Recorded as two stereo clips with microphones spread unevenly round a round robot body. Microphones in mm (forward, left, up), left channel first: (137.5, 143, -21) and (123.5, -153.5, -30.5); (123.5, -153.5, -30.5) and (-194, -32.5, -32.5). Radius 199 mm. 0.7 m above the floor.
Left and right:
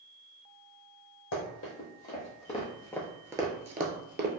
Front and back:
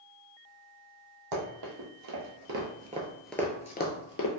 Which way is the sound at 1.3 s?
135° left.